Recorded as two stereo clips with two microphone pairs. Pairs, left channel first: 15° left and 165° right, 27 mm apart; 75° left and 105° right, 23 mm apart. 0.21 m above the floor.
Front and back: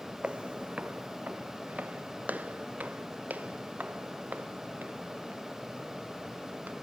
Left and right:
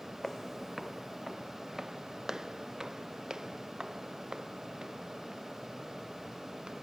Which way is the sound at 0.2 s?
145° left.